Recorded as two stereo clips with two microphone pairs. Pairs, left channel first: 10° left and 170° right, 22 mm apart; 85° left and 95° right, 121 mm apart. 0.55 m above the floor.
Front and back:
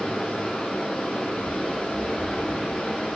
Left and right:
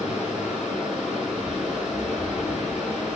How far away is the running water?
About 4.5 m.